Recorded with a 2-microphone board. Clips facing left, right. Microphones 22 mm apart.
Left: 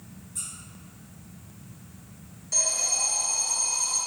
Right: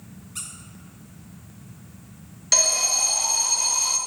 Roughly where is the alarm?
Right.